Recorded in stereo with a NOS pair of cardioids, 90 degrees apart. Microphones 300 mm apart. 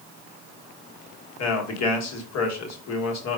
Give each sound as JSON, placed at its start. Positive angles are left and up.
{"t": 1.4, "sound": "a man speaking", "azimuth_deg": 60, "distance_m": 1.4}